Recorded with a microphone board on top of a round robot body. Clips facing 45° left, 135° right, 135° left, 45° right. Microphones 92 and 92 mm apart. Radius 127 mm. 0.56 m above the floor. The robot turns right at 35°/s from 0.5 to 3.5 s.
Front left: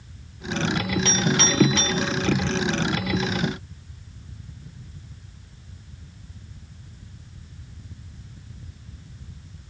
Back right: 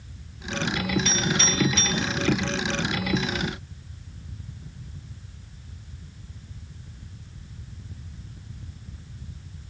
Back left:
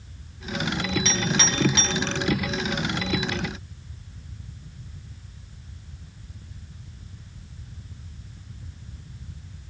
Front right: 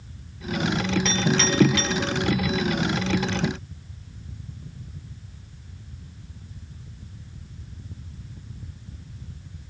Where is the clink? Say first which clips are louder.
Front left 3 dB, front right 3 dB; 50° left, 3.5 m; by 2.0 s 80° left, 3.5 m.